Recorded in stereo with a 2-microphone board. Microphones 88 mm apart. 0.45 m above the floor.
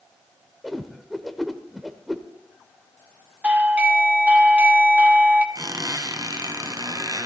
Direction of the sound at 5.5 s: 45° right (ahead or behind).